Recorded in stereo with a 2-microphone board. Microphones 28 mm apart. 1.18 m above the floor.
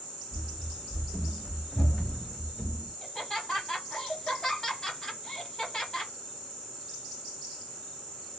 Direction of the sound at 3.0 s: 25° left (ahead or behind).